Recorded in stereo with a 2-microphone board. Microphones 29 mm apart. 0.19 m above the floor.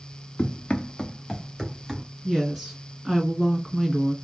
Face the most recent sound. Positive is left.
turn(degrees=-5)  # may be behind; listen again after turning